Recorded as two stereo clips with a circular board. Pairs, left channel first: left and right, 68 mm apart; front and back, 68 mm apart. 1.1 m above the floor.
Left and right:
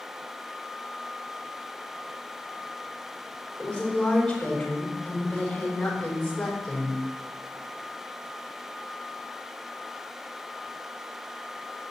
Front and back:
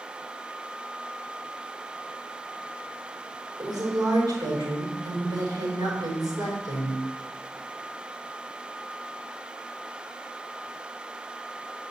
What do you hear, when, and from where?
3.6 s a woman speaking: 170° left, 4.5 m